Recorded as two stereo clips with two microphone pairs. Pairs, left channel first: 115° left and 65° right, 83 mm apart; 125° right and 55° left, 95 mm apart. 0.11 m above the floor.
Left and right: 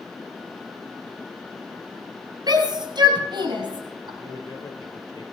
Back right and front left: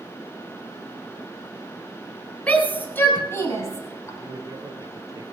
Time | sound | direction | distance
2.5 | a shout | 55° right | 2.5 m
4.2 | a man speaking | 95° left | 2.5 m